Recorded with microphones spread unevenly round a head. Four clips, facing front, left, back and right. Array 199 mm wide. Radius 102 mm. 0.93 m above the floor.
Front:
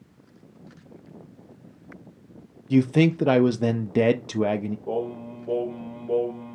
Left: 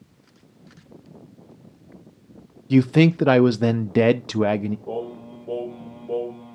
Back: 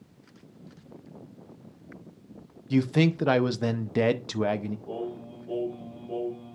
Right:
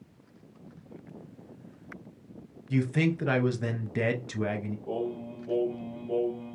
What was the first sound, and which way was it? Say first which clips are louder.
A man speaking: left 11 dB, front 4 dB; 70° left.